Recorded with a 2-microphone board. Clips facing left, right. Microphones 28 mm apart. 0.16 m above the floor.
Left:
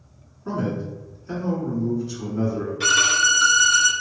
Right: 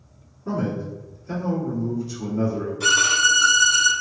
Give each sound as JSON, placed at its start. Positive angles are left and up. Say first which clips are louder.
{"t": 0.5, "sound": "a man speaking", "louder": "even", "side_deg": 25, "distance_m": 1.8}
{"t": 2.8, "sound": "a violin", "louder": "even", "side_deg": 45, "distance_m": 0.8}